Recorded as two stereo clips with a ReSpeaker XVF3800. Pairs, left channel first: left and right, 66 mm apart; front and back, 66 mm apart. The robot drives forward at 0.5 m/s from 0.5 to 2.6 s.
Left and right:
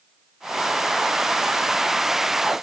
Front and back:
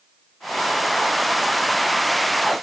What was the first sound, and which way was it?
Only background noise.